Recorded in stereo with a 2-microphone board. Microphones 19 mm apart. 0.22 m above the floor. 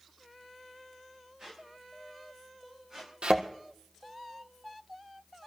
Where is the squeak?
40° right (ahead or behind), 8.5 m.